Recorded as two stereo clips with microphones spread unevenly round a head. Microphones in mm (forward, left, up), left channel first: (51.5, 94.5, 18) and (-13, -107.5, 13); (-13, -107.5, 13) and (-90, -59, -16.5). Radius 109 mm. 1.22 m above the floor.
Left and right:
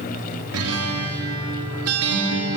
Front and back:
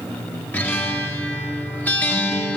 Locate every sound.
0.5 s a guitar: 105° right, 3.5 m